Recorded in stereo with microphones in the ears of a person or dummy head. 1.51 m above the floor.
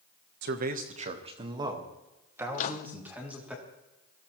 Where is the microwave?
50° left (ahead or behind), 0.7 m.